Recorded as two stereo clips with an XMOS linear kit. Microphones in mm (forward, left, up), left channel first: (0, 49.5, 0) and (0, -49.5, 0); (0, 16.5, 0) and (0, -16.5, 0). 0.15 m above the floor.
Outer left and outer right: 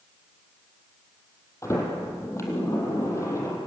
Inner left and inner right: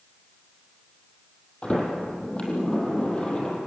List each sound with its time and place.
1.6 s a sliding door: 30° left (ahead or behind), 4.5 m